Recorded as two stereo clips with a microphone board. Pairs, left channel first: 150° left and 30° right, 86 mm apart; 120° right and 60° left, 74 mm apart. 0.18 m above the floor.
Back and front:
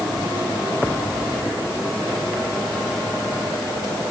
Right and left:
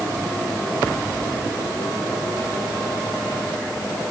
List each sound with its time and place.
Only background noise.